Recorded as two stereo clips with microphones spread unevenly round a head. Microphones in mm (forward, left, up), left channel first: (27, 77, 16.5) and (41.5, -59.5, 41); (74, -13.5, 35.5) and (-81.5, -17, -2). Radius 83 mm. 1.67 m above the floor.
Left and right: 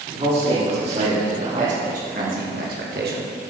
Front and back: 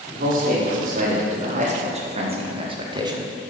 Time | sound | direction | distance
0.1 | a man speaking | 140° right | 5.5 m